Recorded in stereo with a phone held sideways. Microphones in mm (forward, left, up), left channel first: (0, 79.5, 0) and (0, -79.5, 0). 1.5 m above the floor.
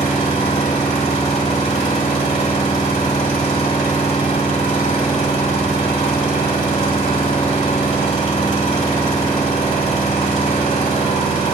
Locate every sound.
0.0 s an engine running: 45° left (ahead or behind), 2 m